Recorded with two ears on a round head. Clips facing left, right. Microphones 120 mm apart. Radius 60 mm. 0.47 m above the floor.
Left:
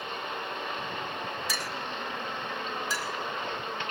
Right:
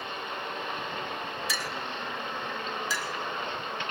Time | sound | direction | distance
1.5 | a clink | 40° left (ahead or behind) | 0.9 m
2.9 | a clink | 65° right (ahead or behind) | 2 m